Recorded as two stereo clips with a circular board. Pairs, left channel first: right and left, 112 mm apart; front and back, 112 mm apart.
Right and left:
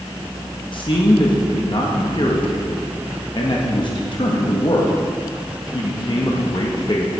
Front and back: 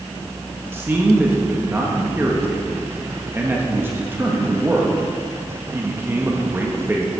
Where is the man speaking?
115° right, 1.1 m.